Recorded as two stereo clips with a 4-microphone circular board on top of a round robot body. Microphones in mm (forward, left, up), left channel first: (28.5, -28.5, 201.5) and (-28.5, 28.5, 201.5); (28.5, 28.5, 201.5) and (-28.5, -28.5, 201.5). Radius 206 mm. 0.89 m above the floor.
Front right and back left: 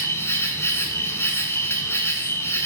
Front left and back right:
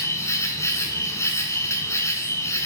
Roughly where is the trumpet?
No trumpet in this recording.